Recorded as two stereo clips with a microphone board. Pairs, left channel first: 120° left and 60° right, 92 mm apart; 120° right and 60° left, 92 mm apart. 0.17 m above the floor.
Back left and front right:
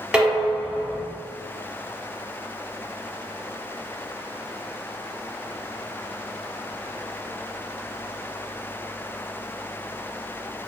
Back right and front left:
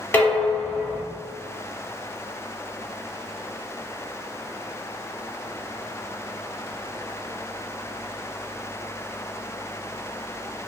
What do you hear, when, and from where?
0.1 s dishes clattering: 130° right, 0.9 m